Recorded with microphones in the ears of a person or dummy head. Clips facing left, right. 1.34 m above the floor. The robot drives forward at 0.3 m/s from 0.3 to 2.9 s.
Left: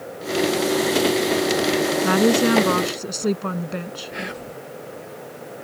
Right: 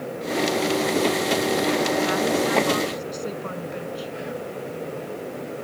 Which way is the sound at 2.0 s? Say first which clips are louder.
Left 5 dB; 65° left (ahead or behind).